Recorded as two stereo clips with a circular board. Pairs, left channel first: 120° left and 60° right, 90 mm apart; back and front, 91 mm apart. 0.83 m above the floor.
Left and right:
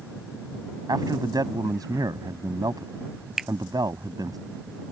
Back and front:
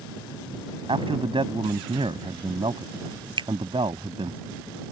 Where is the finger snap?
25° left.